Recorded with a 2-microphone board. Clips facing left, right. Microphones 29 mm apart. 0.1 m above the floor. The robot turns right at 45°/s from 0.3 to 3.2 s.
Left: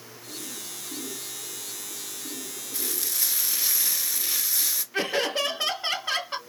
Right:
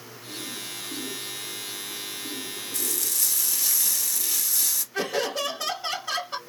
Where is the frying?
30° left (ahead or behind), 1.2 m; by 4.8 s 25° left (ahead or behind), 1.2 m.